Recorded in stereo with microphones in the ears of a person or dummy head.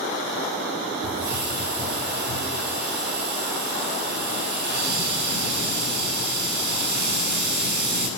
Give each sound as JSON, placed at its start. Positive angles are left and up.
{"t": 1.0, "sound": "a hiss", "side_deg": -55, "distance_m": 10.0}